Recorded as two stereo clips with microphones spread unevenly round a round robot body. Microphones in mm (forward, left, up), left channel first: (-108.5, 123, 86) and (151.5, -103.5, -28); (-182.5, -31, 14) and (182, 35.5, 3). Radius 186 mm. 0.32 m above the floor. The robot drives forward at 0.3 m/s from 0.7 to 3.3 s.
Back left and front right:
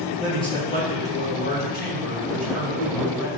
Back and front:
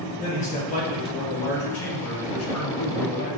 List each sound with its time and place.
0.2 s a man speaking: 120° right, 1.0 m; by 3.3 s 160° right, 1.4 m